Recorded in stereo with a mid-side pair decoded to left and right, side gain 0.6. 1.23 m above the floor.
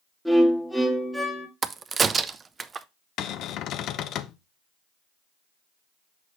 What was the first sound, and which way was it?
A violin, straight ahead.